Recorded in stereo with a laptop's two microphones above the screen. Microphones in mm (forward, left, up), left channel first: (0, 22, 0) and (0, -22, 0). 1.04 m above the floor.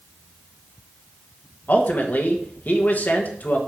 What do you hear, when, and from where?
1.7 s a man speaking: 40° left (ahead or behind), 1.2 m